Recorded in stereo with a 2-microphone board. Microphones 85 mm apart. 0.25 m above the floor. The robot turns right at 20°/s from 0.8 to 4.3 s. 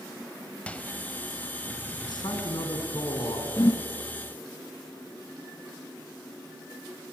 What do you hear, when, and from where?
0.7 s a microwave: 15° left (ahead or behind), 0.7 m
2.0 s a man speaking: 55° left (ahead or behind), 3 m; by 3.5 s 65° left (ahead or behind), 3 m
3.6 s a whoosh: 40° left (ahead or behind), 0.7 m; by 3.8 s 50° left (ahead or behind), 0.7 m